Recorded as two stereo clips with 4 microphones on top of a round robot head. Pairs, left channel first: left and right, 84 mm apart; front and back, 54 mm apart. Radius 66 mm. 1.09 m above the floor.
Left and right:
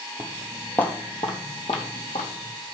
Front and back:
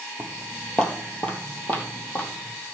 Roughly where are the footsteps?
Right.